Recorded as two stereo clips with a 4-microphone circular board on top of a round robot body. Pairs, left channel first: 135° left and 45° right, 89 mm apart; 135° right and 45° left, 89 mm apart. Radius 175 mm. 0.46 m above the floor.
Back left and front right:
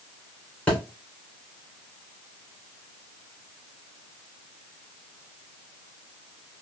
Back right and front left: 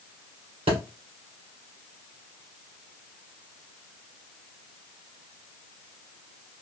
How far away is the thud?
About 2 m.